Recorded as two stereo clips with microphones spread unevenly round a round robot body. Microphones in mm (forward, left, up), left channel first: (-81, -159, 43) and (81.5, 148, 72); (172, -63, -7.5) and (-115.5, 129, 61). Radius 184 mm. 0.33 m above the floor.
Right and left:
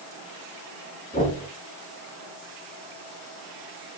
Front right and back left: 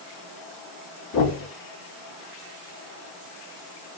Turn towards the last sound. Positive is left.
turn(degrees=-55)